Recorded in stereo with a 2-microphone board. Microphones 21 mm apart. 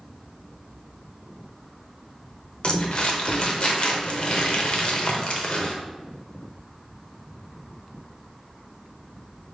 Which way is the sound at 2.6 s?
45° left (ahead or behind).